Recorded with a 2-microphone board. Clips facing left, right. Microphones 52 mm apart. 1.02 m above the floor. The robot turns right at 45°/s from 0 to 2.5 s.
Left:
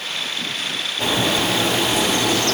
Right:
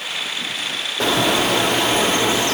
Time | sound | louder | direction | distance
1.0 | a bird | right 3 dB | 90° right | 1.0 m